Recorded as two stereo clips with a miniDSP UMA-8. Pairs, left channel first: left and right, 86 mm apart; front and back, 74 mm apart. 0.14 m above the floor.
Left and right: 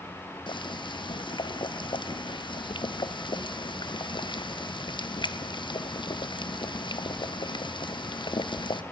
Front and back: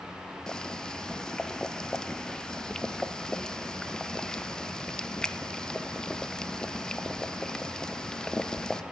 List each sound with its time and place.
0.5 s boiling: 80° left, 0.5 m